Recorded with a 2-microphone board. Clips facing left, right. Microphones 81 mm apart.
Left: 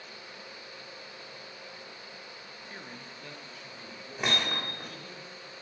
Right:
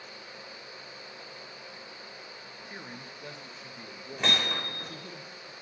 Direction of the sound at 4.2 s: 5° left (ahead or behind).